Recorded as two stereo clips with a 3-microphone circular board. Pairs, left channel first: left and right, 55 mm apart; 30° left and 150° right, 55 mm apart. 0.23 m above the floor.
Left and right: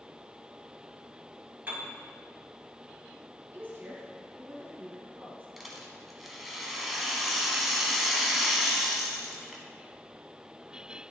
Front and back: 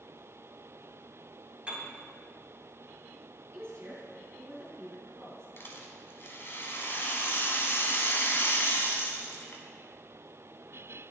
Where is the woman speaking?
130° right, 2.5 m.